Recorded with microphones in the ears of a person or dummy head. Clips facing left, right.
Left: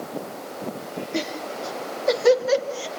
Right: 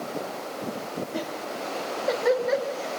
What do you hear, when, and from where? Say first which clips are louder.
1.1 s laughter: left 3 dB; 35° left (ahead or behind), 3 m; by 2.9 s 50° left (ahead or behind), 3.5 m